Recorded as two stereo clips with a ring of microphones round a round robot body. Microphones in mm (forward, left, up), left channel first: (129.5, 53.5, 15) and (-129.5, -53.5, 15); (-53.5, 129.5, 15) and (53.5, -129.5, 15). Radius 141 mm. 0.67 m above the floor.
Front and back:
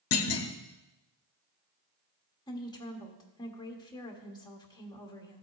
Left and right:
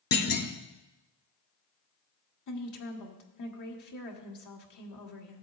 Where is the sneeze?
No sneeze in this recording.